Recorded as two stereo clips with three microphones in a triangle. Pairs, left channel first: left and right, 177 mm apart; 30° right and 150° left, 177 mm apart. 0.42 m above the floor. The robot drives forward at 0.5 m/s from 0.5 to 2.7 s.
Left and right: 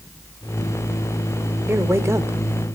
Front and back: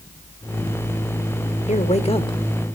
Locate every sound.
1.7 s a man speaking: 20° right, 1.2 m; by 2.4 s 35° right, 1.0 m